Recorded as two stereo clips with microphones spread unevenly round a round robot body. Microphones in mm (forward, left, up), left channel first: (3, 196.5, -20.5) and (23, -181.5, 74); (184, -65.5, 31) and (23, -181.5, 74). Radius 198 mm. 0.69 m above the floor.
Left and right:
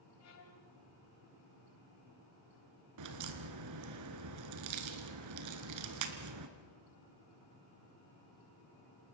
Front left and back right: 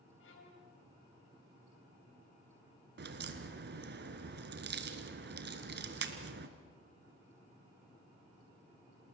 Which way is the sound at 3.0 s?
125° right.